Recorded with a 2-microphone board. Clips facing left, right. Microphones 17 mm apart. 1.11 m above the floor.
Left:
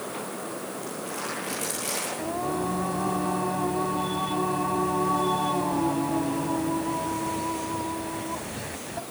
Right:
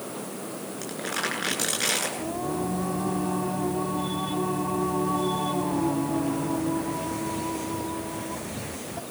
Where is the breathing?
No breathing in this recording.